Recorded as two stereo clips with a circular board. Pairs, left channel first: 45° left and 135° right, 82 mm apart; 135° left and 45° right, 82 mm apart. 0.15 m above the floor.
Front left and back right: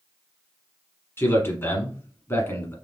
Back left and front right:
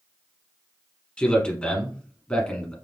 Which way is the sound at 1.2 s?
70° left.